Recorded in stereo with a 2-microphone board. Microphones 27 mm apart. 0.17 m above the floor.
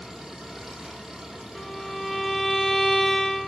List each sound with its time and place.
0.0 s an engine running: 15° right (ahead or behind), 7 m
1.6 s a violin: 10° left (ahead or behind), 1.1 m